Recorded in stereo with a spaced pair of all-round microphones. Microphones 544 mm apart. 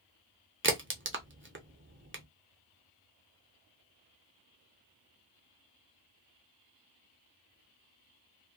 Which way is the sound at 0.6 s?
25° right (ahead or behind).